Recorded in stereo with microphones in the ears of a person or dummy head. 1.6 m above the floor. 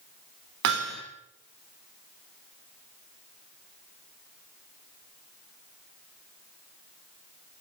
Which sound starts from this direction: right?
Hammering, at 0.6 s.